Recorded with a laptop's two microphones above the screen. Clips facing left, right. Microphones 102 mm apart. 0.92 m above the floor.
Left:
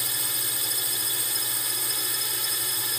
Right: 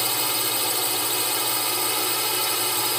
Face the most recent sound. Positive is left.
turn(degrees=-70)  # may be behind; listen again after turning